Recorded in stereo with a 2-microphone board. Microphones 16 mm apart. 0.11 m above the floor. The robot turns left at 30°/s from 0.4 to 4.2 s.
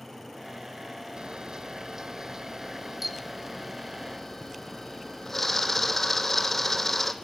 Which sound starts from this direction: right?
A camera shutter, at 1.2 s.